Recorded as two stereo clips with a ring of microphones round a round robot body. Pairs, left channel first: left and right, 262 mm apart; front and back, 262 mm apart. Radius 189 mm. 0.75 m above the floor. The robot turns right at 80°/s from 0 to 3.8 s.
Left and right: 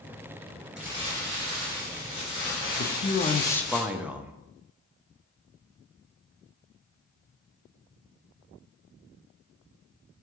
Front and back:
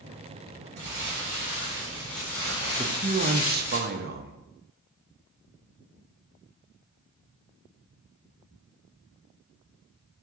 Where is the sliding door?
No sliding door in this recording.